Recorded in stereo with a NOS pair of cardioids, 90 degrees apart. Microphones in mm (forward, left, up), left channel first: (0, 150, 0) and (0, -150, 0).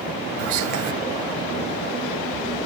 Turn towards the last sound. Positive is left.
turn(degrees=-65)